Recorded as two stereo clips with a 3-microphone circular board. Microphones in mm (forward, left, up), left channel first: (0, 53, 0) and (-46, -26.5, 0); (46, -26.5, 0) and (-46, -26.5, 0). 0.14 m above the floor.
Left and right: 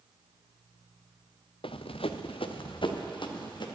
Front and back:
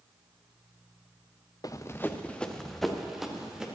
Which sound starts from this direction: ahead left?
Running footsteps, at 1.6 s.